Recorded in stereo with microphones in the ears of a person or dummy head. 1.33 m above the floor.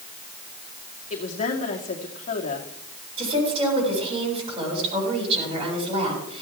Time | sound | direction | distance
1.1 | a woman speaking | 45° left (ahead or behind) | 2 m
3.2 | a woman speaking | 35° right (ahead or behind) | 7.5 m